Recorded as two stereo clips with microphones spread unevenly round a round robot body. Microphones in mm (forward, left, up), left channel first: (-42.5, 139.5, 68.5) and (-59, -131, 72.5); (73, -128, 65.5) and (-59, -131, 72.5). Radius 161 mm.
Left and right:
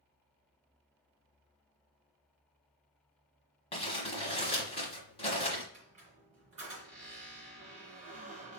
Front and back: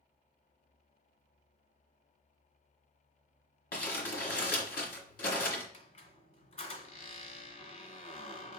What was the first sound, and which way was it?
Crumpling, 15° left.